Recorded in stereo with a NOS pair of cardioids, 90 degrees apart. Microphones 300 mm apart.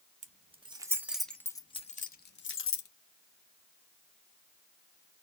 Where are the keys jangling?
25° right, 1.3 m; by 2.9 s 50° left, 1.2 m.